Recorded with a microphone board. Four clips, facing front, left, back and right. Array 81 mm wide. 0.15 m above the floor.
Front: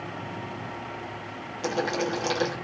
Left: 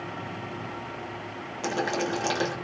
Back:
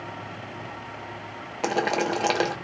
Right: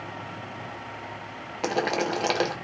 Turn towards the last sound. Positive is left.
turn(degrees=-145)